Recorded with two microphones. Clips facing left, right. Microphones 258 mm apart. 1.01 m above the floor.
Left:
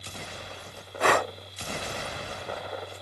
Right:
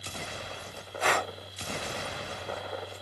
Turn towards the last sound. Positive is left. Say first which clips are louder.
# left 6 dB
turn(degrees=65)  # may be behind; listen again after turning